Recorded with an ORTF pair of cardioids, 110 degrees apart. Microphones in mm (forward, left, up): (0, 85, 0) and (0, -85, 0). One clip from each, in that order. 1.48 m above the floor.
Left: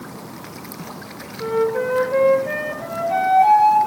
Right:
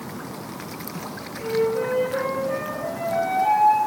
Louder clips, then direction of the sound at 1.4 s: Left 3 dB; 70° left.